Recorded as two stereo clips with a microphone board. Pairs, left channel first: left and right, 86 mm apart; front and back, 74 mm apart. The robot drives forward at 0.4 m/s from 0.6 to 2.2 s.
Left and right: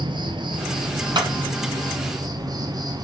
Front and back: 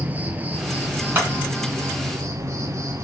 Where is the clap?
120° right, 3.5 m.